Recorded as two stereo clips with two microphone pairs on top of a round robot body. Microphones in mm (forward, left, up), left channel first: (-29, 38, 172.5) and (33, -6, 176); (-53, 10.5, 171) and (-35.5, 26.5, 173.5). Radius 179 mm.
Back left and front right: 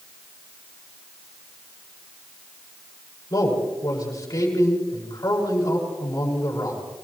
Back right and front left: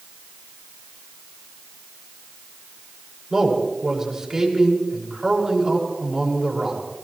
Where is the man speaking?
115° left, 6.5 m.